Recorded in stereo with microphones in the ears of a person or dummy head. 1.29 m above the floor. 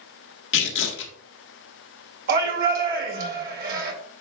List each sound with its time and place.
0.5 s tearing paper: 65° left (ahead or behind), 1.6 m
2.3 s a shout: 60° right (ahead or behind), 2.5 m